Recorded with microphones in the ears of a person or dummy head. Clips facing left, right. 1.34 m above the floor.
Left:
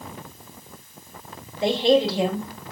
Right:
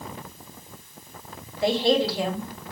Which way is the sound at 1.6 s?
25° left (ahead or behind).